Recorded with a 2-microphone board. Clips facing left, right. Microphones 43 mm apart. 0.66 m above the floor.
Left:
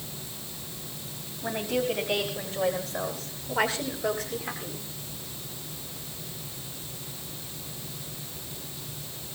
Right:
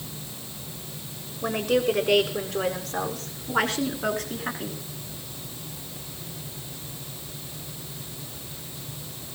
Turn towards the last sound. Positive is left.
turn(degrees=-55)  # may be behind; listen again after turning